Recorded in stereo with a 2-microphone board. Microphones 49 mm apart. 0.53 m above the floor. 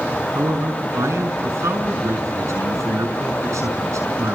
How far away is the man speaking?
About 6 m.